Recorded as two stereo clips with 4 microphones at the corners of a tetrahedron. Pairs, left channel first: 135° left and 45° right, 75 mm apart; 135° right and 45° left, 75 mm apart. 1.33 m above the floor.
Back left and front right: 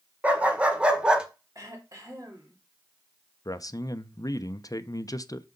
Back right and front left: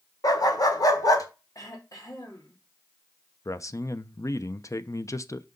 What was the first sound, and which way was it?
A dog barking, 115° right.